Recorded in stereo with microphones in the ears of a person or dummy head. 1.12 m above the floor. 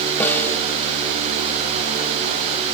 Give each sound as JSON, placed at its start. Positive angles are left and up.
{"t": 0.2, "sound": "a snare drum", "side_deg": 10, "distance_m": 1.9}